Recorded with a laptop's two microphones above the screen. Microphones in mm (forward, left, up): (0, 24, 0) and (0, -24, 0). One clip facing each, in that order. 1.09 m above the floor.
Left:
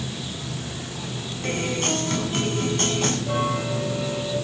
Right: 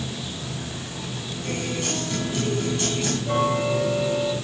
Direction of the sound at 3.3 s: 5° right (ahead or behind).